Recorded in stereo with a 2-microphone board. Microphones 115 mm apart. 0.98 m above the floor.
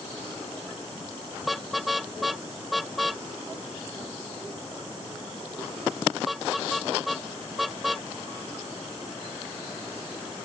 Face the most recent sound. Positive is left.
turn(degrees=0)  # may be behind; listen again after turning